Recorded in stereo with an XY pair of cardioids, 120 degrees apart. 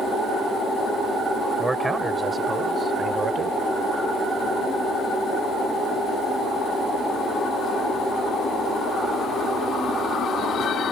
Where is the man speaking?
15° right; by 3.6 s 40° right.